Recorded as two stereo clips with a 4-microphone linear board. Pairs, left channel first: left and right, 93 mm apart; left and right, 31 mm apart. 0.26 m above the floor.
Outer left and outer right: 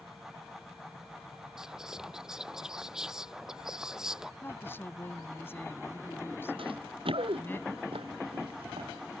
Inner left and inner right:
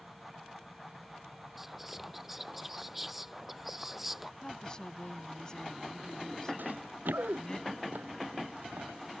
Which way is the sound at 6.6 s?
70° right (ahead or behind).